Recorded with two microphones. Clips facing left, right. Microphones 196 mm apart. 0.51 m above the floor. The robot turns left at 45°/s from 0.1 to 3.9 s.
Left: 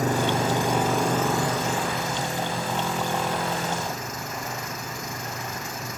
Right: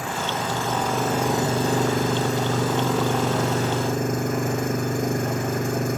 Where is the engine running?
40° left; by 6.0 s 130° right.